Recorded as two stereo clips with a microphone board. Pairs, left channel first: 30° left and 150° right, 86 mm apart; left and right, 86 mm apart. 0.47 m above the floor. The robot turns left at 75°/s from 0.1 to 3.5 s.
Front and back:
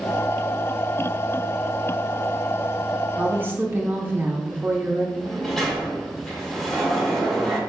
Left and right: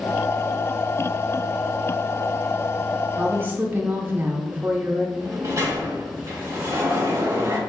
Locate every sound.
3.2 s a woman speaking: 100° right, 0.8 m; by 5.1 s 125° right, 0.8 m
5.2 s a sliding door: 55° right, 1.3 m